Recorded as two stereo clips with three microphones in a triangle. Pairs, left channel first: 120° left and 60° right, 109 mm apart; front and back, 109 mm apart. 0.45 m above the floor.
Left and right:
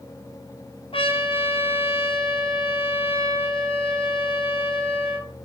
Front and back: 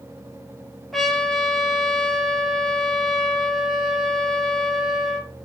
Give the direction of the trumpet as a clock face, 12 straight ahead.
9 o'clock.